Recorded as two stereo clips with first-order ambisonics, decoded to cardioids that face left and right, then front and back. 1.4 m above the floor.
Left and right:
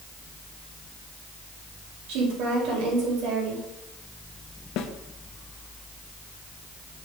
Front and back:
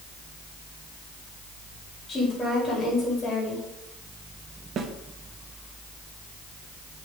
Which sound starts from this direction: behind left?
A snare drum, at 4.8 s.